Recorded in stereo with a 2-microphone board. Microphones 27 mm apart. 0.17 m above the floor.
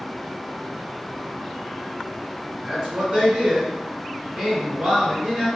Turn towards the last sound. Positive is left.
turn(degrees=-35)  # may be behind; listen again after turning